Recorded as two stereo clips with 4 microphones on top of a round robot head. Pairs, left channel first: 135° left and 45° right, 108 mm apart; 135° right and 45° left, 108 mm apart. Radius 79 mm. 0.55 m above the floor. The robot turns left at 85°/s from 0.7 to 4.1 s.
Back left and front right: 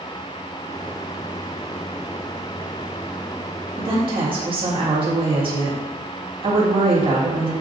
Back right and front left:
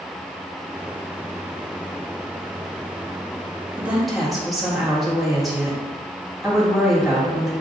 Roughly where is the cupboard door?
No cupboard door in this recording.